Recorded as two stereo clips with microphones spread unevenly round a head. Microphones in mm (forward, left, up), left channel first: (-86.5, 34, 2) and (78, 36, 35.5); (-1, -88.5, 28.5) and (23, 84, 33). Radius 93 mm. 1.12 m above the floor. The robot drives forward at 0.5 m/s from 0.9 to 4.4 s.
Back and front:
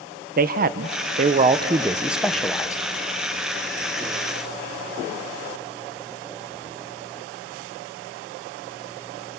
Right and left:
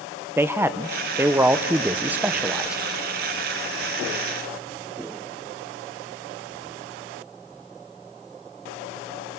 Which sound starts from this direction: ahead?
A man speaking, at 0.4 s.